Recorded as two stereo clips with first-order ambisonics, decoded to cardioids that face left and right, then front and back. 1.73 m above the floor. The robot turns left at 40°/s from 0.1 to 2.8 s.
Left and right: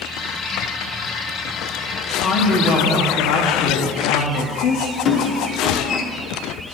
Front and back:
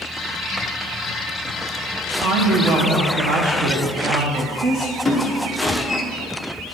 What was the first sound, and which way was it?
A woman speaking, 155° left.